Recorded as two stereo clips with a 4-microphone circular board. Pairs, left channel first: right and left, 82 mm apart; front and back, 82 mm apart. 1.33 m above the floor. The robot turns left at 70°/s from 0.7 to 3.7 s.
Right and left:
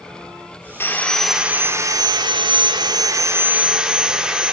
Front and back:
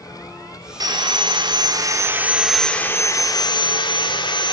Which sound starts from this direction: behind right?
Sawing, at 0.8 s.